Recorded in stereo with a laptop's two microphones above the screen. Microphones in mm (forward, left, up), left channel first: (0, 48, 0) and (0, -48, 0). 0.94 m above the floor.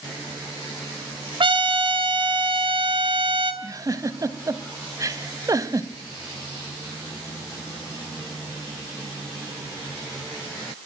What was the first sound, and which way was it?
A trumpet, 60° right (ahead or behind).